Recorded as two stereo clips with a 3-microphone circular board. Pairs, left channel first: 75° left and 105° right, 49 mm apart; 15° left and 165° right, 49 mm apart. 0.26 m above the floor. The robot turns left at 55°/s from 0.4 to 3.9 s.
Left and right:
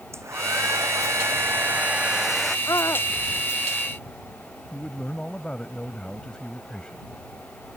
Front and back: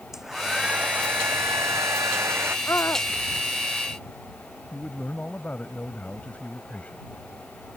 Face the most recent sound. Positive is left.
turn(degrees=15)